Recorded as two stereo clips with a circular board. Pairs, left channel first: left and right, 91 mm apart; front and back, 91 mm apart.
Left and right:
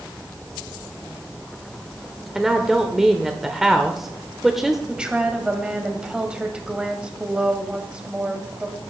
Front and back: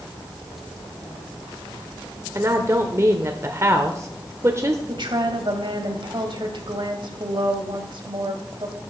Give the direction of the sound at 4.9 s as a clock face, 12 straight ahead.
6 o'clock.